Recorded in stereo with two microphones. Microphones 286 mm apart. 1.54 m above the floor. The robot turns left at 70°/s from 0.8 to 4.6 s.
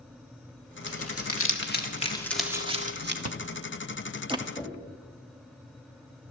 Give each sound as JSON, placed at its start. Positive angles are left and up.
{"t": 0.9, "sound": "crumpling", "side_deg": 50, "distance_m": 1.5}
{"t": 3.2, "sound": "chewing", "side_deg": -65, "distance_m": 0.8}
{"t": 4.6, "sound": "knocking", "side_deg": 0, "distance_m": 2.5}